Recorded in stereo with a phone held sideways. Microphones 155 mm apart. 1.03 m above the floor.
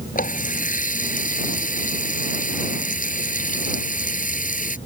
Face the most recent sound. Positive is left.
turn(degrees=65)  # may be behind; listen again after turning